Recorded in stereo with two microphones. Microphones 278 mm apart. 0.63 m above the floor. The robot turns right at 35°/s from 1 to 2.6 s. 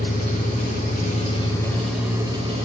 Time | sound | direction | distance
0.0 | an engine running | 150° left | 1.6 m